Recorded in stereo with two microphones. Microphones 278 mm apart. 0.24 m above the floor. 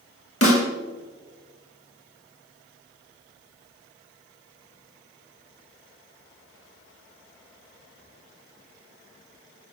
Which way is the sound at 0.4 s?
55° left (ahead or behind).